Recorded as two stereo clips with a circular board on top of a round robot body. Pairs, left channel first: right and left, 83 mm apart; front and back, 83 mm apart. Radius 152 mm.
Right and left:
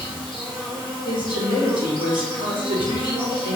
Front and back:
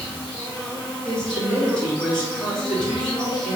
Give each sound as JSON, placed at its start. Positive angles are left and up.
{"t": 0.0, "sound": "an insect", "azimuth_deg": 80, "distance_m": 1.5}
{"t": 1.1, "sound": "a woman speaking", "azimuth_deg": 80, "distance_m": 3.0}